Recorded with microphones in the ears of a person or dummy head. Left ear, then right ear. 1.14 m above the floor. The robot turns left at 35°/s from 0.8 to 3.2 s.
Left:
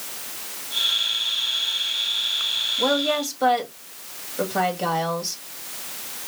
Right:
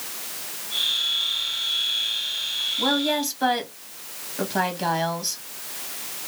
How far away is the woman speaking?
About 1.7 m.